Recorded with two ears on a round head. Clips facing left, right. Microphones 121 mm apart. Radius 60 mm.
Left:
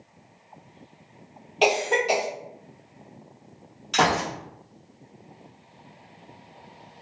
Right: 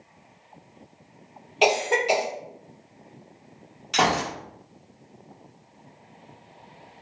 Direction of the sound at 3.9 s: 5° right (ahead or behind).